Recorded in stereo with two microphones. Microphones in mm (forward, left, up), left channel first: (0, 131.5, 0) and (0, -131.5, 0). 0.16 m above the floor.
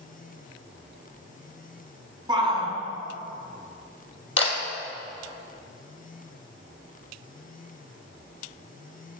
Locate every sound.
2.3 s a shout: 20° right (ahead or behind), 1.4 m
4.4 s a camera shutter: 50° left (ahead or behind), 2 m